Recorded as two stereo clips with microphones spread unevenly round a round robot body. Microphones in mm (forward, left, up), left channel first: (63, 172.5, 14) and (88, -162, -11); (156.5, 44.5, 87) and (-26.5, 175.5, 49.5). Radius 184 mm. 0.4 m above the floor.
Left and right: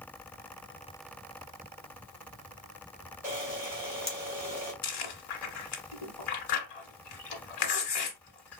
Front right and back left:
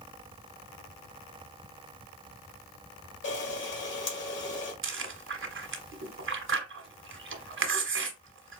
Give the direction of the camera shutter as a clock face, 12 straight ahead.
12 o'clock.